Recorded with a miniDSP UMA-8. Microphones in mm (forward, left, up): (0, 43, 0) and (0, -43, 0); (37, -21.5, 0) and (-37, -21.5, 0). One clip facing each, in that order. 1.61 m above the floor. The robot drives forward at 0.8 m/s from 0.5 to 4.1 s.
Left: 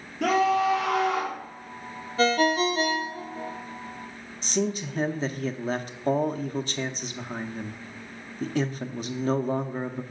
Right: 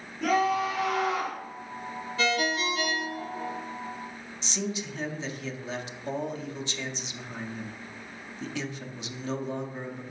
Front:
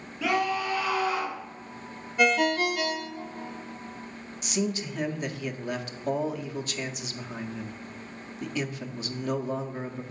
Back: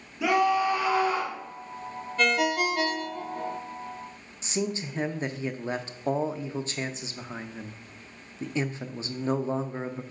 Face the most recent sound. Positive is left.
turn(degrees=125)